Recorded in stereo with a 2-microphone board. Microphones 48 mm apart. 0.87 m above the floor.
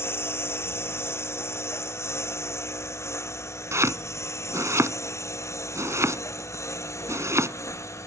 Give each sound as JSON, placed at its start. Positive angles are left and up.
{"t": 0.0, "sound": "a lawn mower", "side_deg": 55}
{"t": 3.7, "sound": "chopping", "side_deg": -80}